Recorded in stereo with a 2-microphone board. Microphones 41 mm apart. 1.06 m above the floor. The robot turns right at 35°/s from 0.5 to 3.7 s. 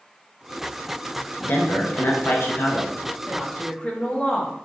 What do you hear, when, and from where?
1.4 s a man speaking: 70° left, 0.8 m; by 2.9 s 120° left, 0.8 m
3.3 s a woman speaking: 20° left (ahead or behind), 0.7 m; by 4.5 s 25° left (ahead or behind), 0.7 m